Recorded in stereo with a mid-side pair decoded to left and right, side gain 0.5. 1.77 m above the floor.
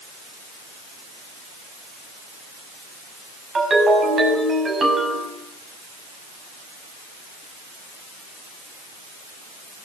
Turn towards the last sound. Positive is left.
turn(degrees=-35)